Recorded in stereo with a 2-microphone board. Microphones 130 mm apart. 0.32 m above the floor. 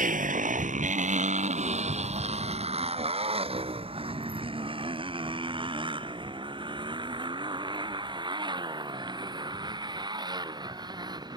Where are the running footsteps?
I don't hear running footsteps.